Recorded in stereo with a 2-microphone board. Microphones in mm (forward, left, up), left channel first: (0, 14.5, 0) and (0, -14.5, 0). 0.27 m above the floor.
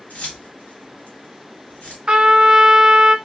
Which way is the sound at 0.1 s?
55° left (ahead or behind).